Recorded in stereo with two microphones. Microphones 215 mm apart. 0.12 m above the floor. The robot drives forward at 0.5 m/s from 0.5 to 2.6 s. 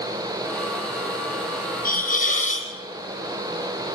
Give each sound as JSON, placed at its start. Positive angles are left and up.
{"t": 1.9, "sound": "a hiss", "side_deg": 40, "distance_m": 2.0}